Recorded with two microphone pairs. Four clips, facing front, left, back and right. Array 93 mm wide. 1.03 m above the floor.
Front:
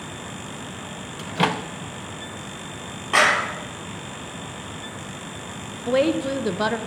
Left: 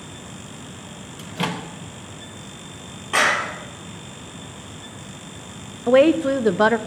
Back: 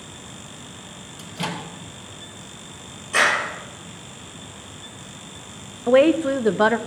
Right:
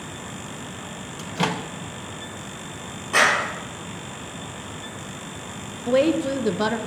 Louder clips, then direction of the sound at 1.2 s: Right 2 dB, front 7 dB; 15° right.